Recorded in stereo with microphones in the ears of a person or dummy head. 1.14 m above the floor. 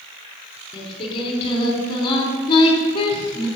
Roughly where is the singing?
Left.